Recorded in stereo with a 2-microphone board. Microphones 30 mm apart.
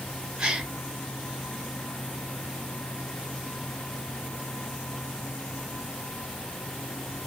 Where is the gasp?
30° right (ahead or behind), 2.5 m.